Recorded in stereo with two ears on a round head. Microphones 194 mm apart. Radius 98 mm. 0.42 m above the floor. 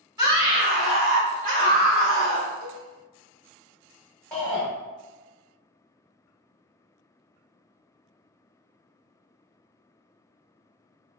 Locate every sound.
0.2 s a scream: 20° right (ahead or behind), 1.3 m; by 2.5 s 50° right (ahead or behind), 2 m
2.6 s a cowbell: 45° right (ahead or behind), 1.0 m
4.3 s a shout: 5° left (ahead or behind), 0.8 m